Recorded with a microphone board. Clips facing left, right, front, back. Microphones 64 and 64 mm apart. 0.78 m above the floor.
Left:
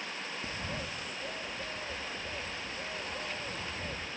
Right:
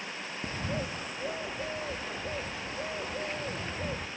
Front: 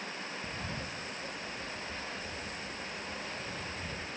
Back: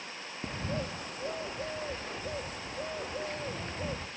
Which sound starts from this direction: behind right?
A bird, at 0.4 s.